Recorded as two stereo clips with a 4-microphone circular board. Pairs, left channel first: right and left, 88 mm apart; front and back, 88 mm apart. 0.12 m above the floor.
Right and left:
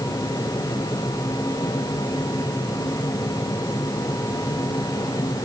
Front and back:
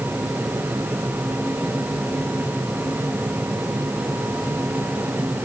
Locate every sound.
Only background noise.